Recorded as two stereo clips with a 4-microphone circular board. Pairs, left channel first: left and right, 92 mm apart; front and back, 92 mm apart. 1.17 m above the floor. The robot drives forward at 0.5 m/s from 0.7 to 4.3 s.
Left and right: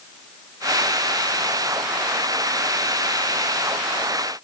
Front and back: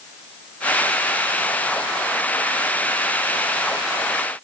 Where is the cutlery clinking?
I don't hear cutlery clinking.